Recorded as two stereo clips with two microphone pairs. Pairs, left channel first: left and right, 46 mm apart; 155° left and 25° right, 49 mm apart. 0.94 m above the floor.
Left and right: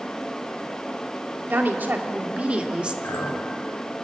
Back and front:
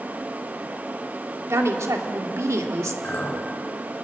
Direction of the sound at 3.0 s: 105° left.